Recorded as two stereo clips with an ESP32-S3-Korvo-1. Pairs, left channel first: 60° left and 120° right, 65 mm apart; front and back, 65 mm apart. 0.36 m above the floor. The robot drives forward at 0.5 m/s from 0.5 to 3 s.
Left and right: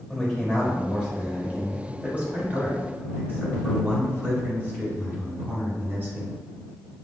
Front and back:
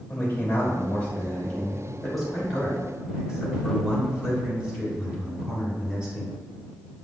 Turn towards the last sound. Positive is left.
turn(degrees=-125)